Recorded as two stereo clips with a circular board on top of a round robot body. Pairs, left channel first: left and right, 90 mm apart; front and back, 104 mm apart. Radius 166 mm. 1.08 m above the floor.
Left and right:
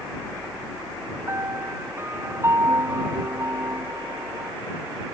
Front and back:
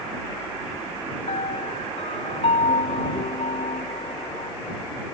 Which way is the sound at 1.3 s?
25° right.